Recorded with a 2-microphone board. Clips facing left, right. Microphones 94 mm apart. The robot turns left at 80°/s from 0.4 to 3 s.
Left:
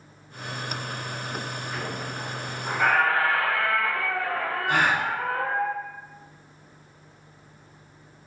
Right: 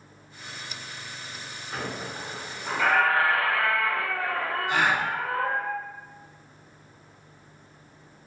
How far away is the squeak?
About 1.2 m.